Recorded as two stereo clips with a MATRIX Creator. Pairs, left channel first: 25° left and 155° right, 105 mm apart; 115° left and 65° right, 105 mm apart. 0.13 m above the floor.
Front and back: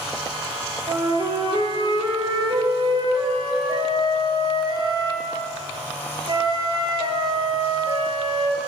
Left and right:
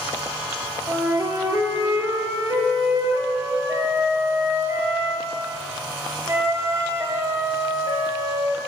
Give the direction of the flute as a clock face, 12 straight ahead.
4 o'clock.